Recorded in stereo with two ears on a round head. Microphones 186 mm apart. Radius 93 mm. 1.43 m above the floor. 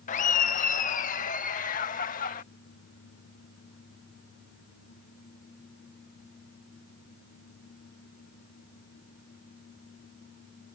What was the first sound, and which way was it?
Laughter, 40° left (ahead or behind).